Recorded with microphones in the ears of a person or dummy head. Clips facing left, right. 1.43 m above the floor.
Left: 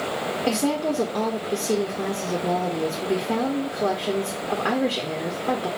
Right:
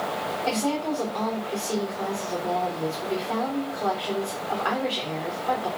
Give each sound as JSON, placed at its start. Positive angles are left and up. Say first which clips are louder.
{"t": 0.5, "sound": "a woman speaking", "louder": "left 3 dB", "side_deg": 45, "distance_m": 1.0}